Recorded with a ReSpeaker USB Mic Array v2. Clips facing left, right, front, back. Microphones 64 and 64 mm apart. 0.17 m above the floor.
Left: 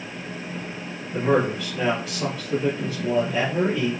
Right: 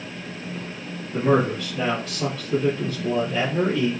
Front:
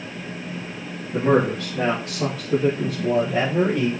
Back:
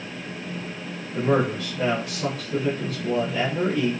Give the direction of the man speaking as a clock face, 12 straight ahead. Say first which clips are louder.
Right 1 dB, front 3 dB; 12 o'clock.